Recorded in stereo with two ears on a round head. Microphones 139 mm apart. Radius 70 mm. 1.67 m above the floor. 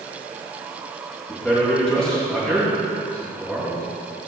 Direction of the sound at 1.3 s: 5° left (ahead or behind).